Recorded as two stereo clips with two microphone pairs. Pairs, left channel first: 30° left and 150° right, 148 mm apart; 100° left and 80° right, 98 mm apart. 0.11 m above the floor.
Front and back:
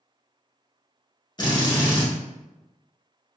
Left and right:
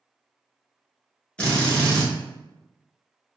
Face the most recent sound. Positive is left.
turn(degrees=35)